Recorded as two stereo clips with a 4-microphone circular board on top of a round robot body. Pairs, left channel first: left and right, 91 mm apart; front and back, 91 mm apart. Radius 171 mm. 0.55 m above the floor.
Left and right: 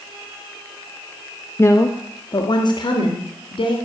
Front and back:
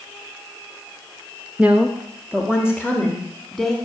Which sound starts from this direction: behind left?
A woman speaking, at 1.6 s.